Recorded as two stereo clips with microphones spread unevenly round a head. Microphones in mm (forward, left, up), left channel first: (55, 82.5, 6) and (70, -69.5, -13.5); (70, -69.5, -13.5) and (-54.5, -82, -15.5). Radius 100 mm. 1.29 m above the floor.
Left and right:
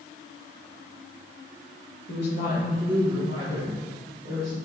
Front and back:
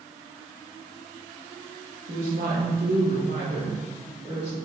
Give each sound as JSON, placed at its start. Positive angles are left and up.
{"t": 2.1, "sound": "a woman speaking", "azimuth_deg": 130, "distance_m": 1.3}